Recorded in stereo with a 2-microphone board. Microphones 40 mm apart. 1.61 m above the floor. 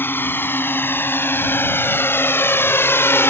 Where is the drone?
60° left (ahead or behind); by 3.3 s 85° left.